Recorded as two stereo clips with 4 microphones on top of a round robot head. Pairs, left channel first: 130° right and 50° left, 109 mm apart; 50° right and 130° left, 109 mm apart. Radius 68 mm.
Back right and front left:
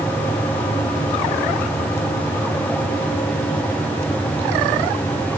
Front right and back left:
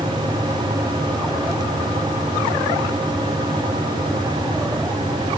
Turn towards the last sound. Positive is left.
No sound to turn to.